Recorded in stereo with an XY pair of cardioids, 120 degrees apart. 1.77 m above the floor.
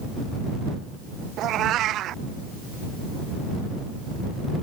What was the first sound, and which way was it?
A cat meowing, 65° right.